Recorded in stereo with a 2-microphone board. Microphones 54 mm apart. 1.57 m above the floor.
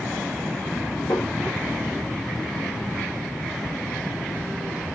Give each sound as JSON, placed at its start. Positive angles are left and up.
{"t": 1.1, "sound": "tapping", "side_deg": 65, "distance_m": 2.5}